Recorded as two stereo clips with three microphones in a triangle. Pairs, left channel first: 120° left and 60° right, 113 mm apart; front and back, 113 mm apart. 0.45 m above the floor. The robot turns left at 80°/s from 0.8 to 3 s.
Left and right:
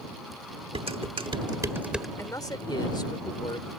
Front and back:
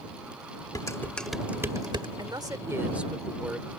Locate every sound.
0.8 s dishes clattering: 50° right; by 2.1 s 150° right
2.2 s a man speaking: 170° left; by 3.7 s 105° left